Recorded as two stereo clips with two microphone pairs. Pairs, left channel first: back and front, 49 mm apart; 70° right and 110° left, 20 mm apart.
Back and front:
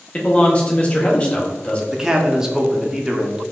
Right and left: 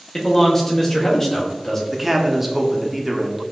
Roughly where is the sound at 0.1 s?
Behind right.